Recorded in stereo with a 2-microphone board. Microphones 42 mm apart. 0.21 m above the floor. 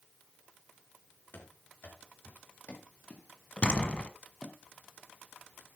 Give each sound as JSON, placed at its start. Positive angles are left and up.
{"t": 1.3, "sound": "running footsteps", "side_deg": 50, "distance_m": 5.5}
{"t": 3.6, "sound": "a door slam", "side_deg": 30, "distance_m": 1.3}